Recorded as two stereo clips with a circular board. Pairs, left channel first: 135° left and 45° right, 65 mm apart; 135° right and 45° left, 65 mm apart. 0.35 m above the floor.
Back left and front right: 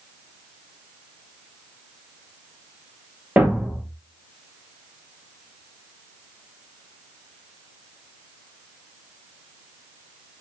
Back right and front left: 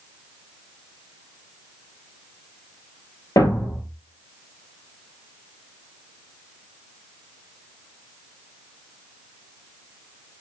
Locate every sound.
3.4 s a thud: 110° right, 1.2 m